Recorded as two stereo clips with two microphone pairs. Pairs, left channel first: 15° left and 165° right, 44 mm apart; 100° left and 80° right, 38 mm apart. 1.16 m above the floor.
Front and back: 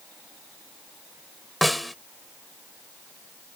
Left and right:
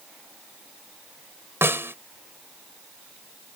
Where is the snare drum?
75° right.